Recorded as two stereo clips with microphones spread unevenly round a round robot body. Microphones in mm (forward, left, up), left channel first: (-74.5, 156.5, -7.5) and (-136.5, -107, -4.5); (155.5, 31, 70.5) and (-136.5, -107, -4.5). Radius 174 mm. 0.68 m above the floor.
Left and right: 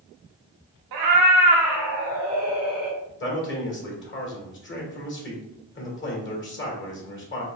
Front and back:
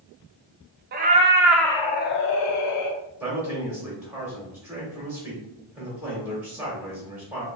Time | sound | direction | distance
0.9 | a cat meowing | 95° right | 0.7 m
3.2 | a man speaking | 125° left | 1.7 m